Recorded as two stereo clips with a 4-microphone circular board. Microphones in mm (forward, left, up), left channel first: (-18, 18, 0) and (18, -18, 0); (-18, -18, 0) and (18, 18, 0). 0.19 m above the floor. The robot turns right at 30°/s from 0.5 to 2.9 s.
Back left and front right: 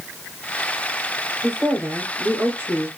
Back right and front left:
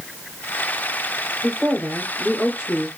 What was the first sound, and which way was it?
A woman speaking, 70° right.